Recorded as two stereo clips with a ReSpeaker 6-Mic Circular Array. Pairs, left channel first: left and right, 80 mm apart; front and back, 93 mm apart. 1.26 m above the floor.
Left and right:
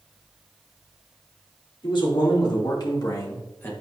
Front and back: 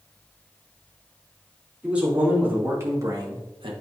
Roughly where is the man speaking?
Left.